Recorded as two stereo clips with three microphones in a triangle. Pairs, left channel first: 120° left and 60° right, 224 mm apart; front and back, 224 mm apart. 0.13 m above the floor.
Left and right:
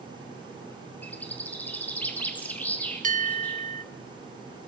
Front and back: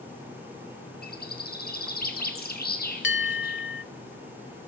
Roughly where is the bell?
Ahead.